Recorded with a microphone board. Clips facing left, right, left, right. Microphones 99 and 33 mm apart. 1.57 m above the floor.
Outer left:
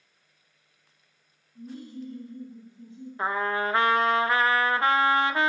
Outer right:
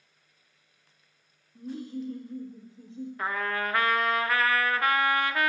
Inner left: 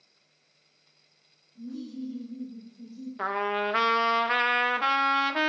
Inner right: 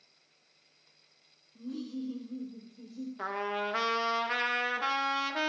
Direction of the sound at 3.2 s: 25° left (ahead or behind).